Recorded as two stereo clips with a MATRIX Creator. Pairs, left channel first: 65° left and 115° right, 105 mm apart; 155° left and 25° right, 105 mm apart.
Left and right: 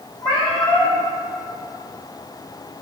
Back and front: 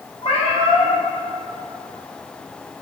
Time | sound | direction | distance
0.2 | a cat meowing | 120° left | 2.5 m